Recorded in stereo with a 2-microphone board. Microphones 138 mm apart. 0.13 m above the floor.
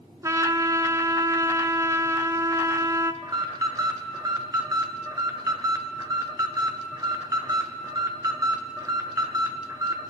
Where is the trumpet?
25° right (ahead or behind), 0.5 m.